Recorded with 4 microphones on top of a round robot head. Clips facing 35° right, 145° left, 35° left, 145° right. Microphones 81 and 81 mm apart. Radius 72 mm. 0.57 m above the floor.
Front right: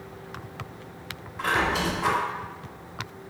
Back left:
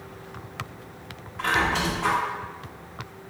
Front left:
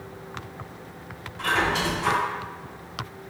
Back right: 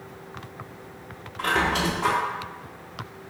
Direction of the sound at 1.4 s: 120° right.